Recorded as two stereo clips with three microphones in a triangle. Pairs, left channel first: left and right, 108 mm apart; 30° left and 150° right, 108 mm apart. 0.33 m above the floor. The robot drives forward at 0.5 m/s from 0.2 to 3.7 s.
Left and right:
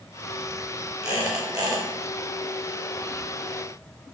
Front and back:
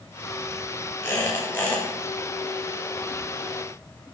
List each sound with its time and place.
1.0 s a squeak: 35° right, 2.5 m; by 1.9 s 45° right, 2.0 m